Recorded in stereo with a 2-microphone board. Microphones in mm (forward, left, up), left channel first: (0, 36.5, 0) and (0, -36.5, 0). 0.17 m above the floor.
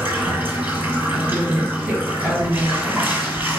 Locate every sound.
0.0 s running water: 30° right (ahead or behind), 0.8 m
1.1 s a woman speaking: 25° right (ahead or behind), 1.3 m